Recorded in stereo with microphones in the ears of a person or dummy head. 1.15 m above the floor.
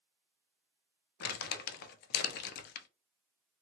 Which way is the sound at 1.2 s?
60° left (ahead or behind).